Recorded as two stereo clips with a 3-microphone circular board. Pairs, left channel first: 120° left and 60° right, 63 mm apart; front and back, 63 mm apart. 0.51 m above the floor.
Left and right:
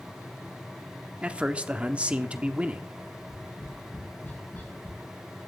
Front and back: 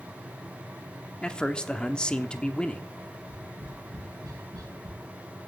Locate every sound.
1.2 s a man speaking: 45° right, 0.9 m
3.1 s tapping: 175° left, 3.5 m